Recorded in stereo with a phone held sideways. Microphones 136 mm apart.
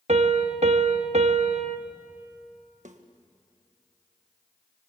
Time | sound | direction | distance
0.1 | a piano | 55° right (ahead or behind) | 1.3 m
2.9 | a snare drum | 65° right (ahead or behind) | 1.5 m